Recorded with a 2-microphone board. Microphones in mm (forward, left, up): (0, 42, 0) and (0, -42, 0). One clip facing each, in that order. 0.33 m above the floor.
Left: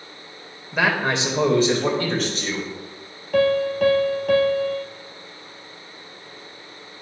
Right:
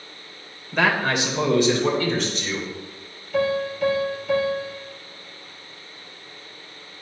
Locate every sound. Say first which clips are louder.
0.7 s a man speaking: even; 5° left (ahead or behind), 1.5 m; by 2.7 s 55° left (ahead or behind), 3 m
3.3 s a piano: left 4 dB; 65° left (ahead or behind), 1.6 m